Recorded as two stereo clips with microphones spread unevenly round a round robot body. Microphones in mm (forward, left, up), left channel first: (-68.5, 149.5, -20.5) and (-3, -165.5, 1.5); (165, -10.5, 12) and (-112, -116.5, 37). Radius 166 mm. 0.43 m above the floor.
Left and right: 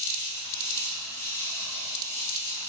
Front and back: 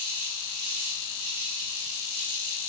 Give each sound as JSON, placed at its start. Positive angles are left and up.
{"t": 0.0, "sound": "an insect", "azimuth_deg": -175, "distance_m": 3.5}